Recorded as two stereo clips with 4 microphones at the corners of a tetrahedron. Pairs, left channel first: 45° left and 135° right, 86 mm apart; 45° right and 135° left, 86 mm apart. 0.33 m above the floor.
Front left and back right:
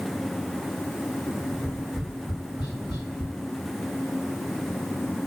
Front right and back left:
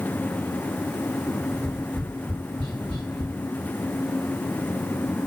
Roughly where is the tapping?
Ahead left.